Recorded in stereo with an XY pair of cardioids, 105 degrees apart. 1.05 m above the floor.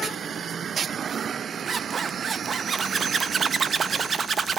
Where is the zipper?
45° right, 0.9 m.